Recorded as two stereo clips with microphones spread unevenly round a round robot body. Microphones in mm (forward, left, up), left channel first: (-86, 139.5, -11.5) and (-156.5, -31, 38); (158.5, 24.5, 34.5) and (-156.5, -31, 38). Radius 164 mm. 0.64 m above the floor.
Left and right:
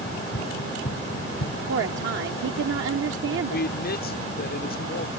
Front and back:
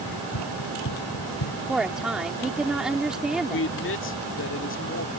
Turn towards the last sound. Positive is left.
turn(degrees=60)